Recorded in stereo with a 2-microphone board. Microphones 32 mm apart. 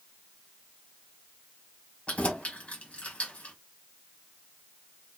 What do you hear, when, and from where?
2.1 s keys jangling: 40° left (ahead or behind), 1.7 m